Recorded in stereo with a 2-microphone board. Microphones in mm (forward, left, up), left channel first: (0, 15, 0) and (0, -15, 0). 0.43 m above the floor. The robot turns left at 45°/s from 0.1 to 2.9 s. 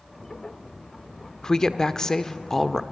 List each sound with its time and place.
1.4 s a woman speaking: 20° left (ahead or behind), 0.8 m; by 2.8 s 10° left (ahead or behind), 0.8 m